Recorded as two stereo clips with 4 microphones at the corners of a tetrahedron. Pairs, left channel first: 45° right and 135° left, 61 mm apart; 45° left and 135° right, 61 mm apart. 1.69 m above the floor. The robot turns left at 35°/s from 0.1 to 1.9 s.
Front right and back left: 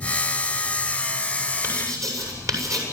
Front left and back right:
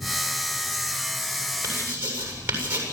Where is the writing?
Straight behind, 7.5 m; by 2.8 s 170° left, 7.5 m.